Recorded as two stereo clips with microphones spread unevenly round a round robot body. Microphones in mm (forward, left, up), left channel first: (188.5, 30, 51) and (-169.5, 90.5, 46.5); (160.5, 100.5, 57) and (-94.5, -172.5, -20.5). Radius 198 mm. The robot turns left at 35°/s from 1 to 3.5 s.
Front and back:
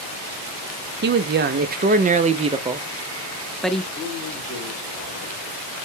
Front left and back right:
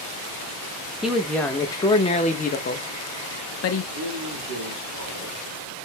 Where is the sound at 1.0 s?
165° left, 0.5 m; by 3.8 s 80° left, 0.5 m.